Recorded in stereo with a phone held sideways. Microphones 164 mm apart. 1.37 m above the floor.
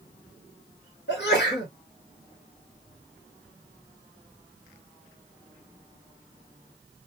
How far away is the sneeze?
About 1.6 m.